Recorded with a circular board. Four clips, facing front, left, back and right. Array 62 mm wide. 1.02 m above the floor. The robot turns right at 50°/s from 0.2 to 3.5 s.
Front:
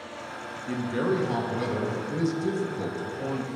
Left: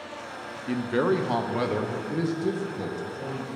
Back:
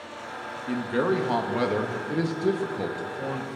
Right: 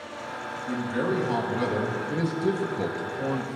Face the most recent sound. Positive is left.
turn(degrees=-110)